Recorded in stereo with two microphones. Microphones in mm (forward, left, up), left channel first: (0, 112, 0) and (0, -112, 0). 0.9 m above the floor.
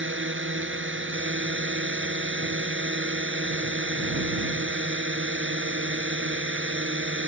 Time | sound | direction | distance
0.0 | a drone | 70° right (ahead or behind) | ?